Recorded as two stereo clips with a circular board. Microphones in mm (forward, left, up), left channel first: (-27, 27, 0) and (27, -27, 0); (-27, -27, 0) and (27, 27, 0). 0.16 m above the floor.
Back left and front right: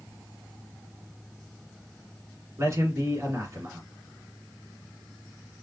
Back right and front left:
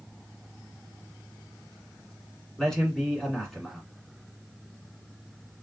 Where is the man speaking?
55° right, 1.6 m.